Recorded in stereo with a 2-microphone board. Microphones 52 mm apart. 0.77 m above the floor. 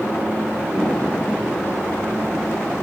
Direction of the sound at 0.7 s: 30° left (ahead or behind).